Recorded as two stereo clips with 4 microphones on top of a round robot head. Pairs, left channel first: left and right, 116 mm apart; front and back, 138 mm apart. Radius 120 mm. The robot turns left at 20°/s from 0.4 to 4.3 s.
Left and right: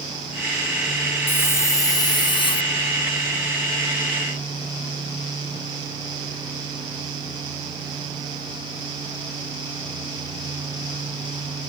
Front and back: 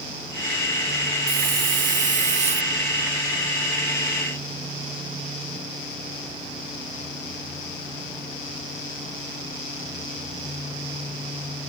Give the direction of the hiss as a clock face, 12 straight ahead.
7 o'clock.